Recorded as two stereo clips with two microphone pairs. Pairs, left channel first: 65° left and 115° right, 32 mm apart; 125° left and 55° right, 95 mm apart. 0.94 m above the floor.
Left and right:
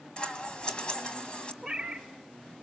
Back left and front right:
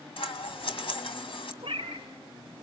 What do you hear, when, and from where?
0.2 s scissors: 125° left, 1.5 m
1.6 s a cat meowing: 45° right, 1.0 m